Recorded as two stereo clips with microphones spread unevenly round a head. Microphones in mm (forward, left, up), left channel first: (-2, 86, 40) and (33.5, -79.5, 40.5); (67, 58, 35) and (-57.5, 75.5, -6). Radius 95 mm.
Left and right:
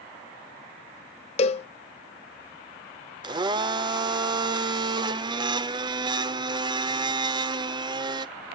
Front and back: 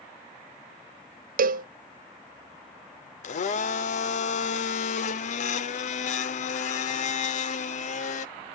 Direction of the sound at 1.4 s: 160° left.